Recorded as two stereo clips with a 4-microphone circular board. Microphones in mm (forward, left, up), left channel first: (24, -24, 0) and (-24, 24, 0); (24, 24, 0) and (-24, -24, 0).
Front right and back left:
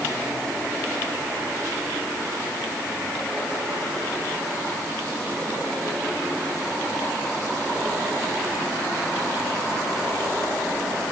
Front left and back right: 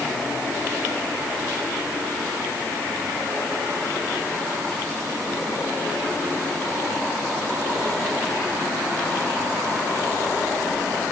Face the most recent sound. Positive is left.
No sound to turn to.